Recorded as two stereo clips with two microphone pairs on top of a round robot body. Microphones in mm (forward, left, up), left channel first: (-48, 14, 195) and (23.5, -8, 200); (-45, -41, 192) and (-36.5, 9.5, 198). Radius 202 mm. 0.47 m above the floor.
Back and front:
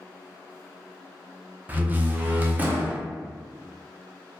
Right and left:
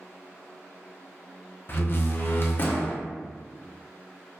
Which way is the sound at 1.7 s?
85° right.